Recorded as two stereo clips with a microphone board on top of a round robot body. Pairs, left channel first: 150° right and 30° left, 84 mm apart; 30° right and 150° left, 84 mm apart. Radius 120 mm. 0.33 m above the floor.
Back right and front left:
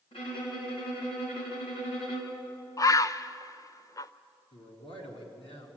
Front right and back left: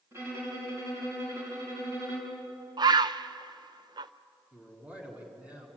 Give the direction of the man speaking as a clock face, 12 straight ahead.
5 o'clock.